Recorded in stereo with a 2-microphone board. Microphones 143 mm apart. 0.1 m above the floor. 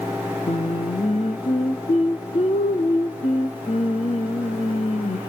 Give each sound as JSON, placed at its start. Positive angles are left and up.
{"t": 0.5, "sound": "singing", "side_deg": 50, "distance_m": 1.6}